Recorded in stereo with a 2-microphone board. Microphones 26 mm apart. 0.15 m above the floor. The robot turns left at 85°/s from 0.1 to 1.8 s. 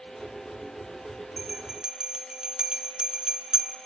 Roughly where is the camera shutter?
No camera shutter in this recording.